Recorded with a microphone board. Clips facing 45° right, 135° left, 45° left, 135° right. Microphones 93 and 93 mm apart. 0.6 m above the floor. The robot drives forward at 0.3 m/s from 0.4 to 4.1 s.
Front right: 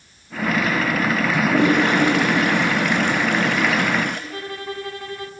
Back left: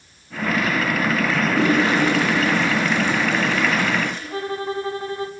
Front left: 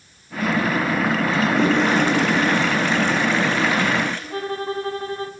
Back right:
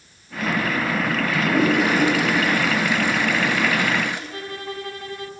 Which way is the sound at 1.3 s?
55° right.